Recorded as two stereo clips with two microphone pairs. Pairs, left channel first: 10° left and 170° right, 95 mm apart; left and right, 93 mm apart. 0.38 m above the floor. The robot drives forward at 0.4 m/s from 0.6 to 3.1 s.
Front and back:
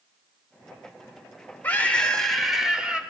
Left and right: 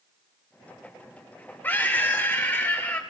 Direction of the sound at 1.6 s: 50° left.